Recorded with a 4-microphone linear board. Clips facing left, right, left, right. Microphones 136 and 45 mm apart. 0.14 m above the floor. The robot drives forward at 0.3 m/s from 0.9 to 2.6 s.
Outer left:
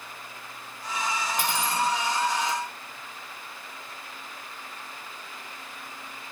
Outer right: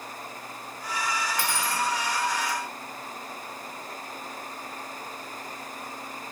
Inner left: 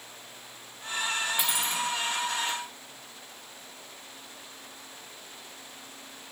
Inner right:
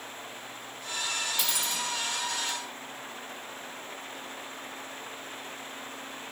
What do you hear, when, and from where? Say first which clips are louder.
1.4 s cutlery clinking: outer left 5 dB, inner left 3 dB; 20° left (ahead or behind), 0.6 m